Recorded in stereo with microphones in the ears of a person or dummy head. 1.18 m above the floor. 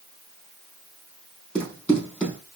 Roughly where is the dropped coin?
No dropped coin in this recording.